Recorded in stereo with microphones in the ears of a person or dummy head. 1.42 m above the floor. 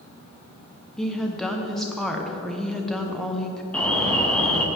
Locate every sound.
1.0 s a woman speaking: 5° left (ahead or behind), 0.9 m
3.7 s an alarm: 5° left (ahead or behind), 0.9 m